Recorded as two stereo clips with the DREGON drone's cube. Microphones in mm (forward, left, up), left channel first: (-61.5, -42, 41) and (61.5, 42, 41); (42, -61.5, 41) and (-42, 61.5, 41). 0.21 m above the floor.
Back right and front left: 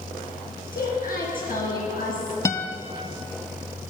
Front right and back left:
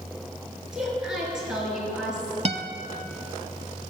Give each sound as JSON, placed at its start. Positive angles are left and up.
{"t": 0.7, "sound": "a woman speaking", "azimuth_deg": -150, "distance_m": 4.5}
{"t": 2.5, "sound": "a guitar", "azimuth_deg": 150, "distance_m": 0.7}